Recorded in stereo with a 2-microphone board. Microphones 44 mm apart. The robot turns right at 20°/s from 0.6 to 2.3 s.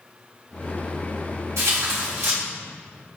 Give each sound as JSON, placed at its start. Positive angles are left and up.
{"t": 1.6, "sound": "tearing paper", "side_deg": -85, "distance_m": 3.0}